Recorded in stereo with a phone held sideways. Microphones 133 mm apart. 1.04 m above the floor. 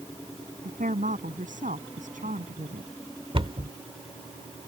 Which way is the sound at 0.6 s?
75° right (ahead or behind).